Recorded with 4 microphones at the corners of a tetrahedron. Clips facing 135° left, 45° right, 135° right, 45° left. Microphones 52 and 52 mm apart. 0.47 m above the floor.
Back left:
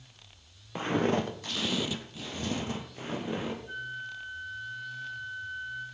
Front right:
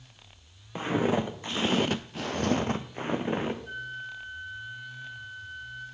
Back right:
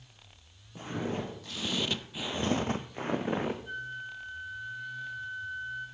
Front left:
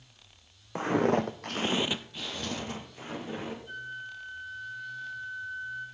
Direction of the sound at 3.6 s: 70° right.